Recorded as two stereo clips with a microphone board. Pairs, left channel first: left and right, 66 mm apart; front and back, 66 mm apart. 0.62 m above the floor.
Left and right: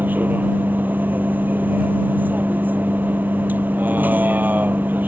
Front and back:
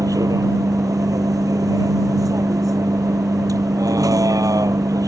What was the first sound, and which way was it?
A vehicle, 155° right.